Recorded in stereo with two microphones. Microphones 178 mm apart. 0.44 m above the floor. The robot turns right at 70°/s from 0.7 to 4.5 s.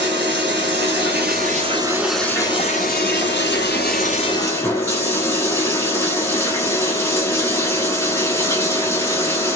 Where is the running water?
100° right, 1.5 m; by 9.6 s 165° left, 1.5 m.